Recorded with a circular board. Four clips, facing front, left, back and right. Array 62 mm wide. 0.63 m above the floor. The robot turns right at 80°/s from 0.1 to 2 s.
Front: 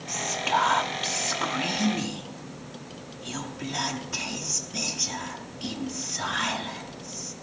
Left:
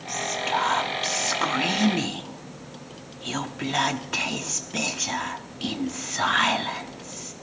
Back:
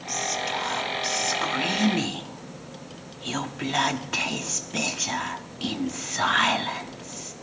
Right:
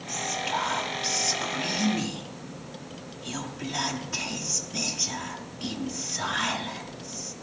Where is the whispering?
20° right, 1.0 m; by 7.3 s 135° left, 1.0 m.